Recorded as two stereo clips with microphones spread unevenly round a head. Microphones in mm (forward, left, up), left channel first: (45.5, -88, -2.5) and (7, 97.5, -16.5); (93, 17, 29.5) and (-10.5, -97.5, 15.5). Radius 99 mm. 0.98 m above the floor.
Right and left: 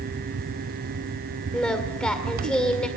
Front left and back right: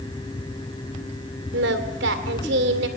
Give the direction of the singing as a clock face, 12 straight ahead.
5 o'clock.